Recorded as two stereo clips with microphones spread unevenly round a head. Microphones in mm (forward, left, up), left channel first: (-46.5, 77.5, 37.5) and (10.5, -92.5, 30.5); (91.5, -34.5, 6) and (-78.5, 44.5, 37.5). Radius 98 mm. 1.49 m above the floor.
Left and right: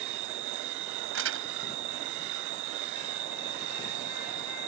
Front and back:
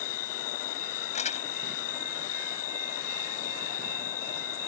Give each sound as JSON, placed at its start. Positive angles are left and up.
{"t": 0.0, "sound": "an insect", "azimuth_deg": -45}
{"t": 1.1, "sound": "crumpling", "azimuth_deg": -85}